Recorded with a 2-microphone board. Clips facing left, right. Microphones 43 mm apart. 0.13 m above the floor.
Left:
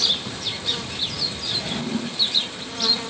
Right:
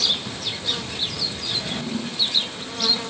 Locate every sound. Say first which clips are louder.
1.5 s a drawer: left 2 dB; 60° left (ahead or behind), 2.5 m